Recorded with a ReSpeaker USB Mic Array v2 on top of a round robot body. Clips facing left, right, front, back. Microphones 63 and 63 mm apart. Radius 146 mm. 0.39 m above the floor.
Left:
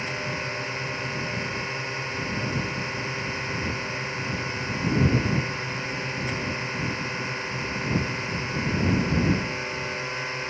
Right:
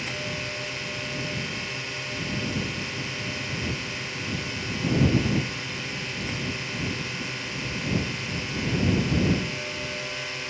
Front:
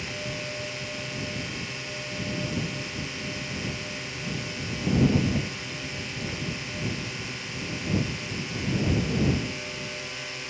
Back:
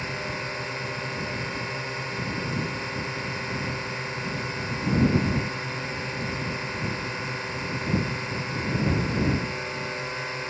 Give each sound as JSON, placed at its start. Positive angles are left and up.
{"t": 0.0, "sound": "a drone", "azimuth_deg": 145}